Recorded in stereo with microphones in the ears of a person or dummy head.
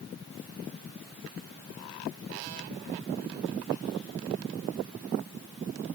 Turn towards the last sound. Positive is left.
No sound to turn to.